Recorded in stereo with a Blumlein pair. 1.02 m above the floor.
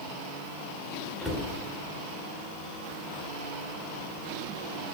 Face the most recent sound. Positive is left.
turn(degrees=10)